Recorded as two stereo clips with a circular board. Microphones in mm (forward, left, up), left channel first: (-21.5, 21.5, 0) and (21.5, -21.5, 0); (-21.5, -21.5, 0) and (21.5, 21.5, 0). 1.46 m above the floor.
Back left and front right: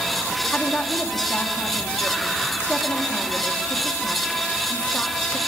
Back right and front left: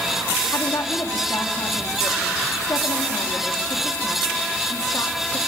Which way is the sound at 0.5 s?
155° right.